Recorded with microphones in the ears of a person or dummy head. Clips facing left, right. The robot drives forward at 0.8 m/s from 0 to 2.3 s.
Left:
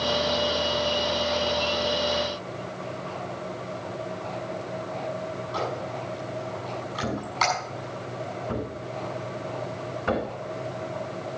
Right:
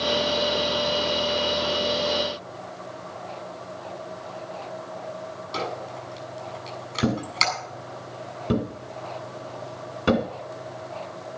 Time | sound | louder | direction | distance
5.5 | a squeak | even | 30° right (ahead or behind) | 7 m
7.0 | a thud | right 4 dB | 40° right (ahead or behind) | 2.0 m